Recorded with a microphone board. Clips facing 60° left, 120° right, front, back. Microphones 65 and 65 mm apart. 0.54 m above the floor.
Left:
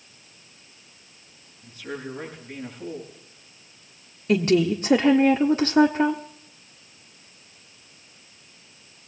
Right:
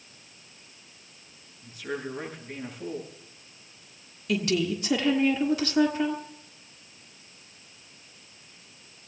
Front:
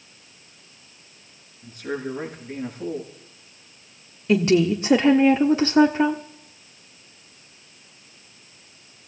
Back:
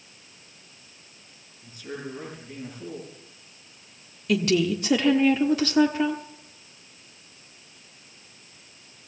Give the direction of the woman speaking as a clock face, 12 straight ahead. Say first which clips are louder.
Left 7 dB, front 4 dB; 11 o'clock.